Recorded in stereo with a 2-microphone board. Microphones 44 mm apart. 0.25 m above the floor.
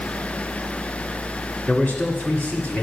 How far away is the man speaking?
About 2.0 m.